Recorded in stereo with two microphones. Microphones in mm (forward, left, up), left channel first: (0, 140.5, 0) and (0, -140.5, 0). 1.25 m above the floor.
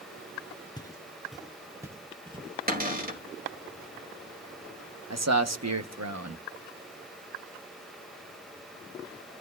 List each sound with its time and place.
0.8 s footsteps: 15° left (ahead or behind), 1.2 m; by 2.6 s 20° right (ahead or behind), 2 m
2.7 s a cupboard door: 30° right (ahead or behind), 2.5 m
5.1 s a man speaking: 65° right (ahead or behind), 1.1 m